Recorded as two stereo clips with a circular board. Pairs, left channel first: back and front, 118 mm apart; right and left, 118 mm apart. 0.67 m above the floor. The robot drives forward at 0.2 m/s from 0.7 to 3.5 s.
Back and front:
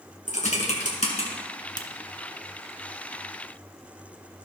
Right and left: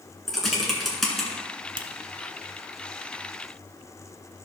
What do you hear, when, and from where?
0.3 s typing on a keyboard: straight behind, 2 m
1.8 s a finger snap: 130° left, 0.8 m